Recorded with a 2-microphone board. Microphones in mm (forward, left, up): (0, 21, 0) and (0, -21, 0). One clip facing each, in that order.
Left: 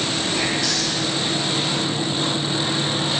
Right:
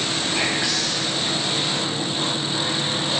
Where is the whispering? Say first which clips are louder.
Right 1 dB; 20° right (ahead or behind), 1.5 m.